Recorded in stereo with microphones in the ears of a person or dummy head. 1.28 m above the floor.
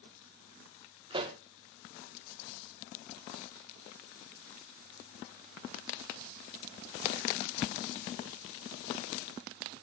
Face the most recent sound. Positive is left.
turn(degrees=-20)  # may be behind; listen again after turning